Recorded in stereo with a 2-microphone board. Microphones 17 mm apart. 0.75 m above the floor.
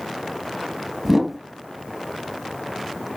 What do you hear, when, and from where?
1.1 s a whoosh: 10° right (ahead or behind), 1.0 m